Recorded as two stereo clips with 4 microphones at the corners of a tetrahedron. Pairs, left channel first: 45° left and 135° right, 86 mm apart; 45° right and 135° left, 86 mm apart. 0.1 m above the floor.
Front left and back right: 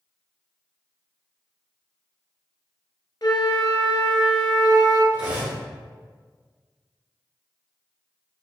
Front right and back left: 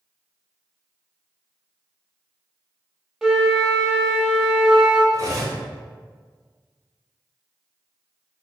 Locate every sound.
3.2 s a flute: 55° left, 0.7 m
5.1 s cutlery clinking: 155° left, 1.2 m